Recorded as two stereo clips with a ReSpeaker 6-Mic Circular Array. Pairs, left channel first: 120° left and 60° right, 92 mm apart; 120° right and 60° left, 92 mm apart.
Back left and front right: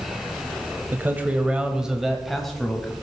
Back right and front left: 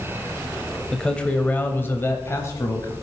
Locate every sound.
0.9 s a man speaking: 45° right, 0.9 m; by 2.9 s 160° right, 1.2 m